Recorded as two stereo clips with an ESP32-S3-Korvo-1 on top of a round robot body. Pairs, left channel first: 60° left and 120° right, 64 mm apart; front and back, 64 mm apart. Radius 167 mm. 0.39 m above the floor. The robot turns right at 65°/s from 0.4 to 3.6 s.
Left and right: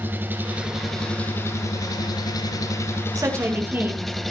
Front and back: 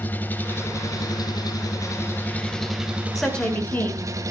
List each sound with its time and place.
0.0 s an engine running: 60° right, 2.5 m; by 4.3 s 145° left, 2.5 m
3.1 s a woman speaking: 90° right, 6.5 m; by 4.1 s 60° right, 6.5 m